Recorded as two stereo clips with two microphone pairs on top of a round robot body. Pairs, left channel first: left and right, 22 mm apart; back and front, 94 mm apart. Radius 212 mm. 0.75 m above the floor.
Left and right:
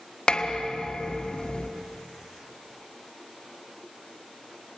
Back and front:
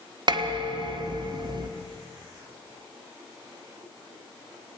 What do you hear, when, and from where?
0.3 s dishes clattering: 40° left, 1.5 m